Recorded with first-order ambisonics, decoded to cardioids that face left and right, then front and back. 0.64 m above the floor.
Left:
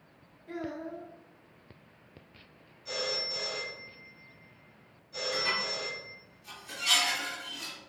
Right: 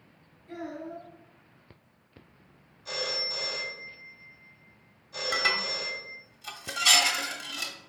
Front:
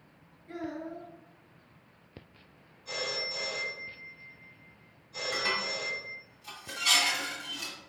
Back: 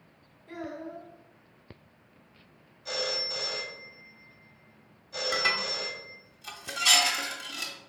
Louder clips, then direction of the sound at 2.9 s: Right 2 dB, back 3 dB; 170° right.